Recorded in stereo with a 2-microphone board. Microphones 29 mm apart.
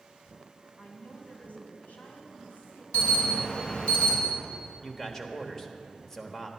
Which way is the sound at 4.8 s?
15° left (ahead or behind).